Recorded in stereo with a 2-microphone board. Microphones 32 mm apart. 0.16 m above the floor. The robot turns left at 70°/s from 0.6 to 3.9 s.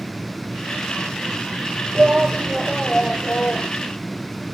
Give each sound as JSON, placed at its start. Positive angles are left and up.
{"t": 1.9, "sound": "a shout", "azimuth_deg": -130}